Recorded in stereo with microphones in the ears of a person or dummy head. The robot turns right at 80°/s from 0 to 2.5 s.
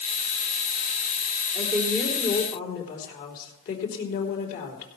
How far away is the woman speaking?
About 3.5 m.